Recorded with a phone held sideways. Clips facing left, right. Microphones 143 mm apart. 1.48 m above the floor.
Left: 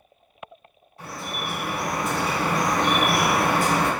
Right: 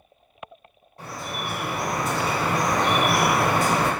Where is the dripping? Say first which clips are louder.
Even; 50° right (ahead or behind), 1.8 m.